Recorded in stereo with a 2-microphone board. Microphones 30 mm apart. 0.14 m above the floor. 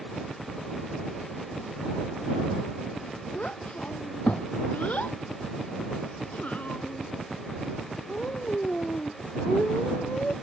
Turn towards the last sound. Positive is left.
turn(degrees=60)  # may be behind; listen again after turning